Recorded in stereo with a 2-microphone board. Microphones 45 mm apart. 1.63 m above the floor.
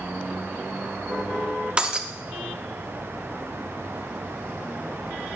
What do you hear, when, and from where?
1.8 s breaking glass: 20° right (ahead or behind), 0.7 m